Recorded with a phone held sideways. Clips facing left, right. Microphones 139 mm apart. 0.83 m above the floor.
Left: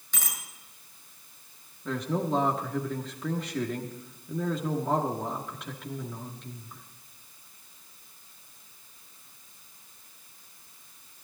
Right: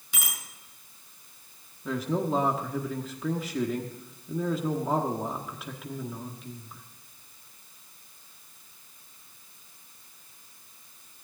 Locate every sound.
0.1 s a bicycle bell: 10° right (ahead or behind), 7 m
1.9 s a man speaking: 5° right (ahead or behind), 1.3 m